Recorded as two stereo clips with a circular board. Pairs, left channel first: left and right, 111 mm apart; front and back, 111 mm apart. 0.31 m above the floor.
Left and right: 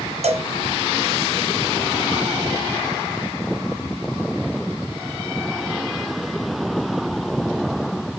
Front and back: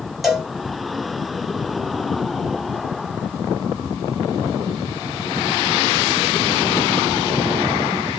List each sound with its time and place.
0.2 s a cowbell: 90° right, 0.6 m